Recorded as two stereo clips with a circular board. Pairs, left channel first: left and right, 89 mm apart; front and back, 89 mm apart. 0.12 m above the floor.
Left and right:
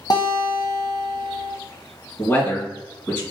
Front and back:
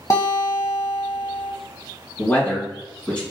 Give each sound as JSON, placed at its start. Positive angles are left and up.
{"t": 0.1, "sound": "a guitar", "azimuth_deg": 55, "distance_m": 1.0}
{"t": 2.2, "sound": "a man speaking", "azimuth_deg": 60, "distance_m": 1.8}